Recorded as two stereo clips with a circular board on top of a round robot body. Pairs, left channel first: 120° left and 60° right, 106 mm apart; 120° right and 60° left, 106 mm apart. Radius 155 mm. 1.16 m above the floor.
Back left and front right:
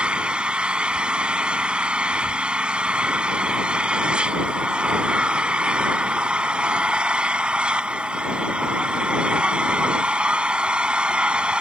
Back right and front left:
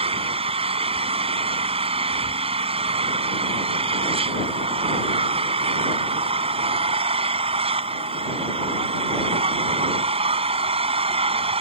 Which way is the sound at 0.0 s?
20° left.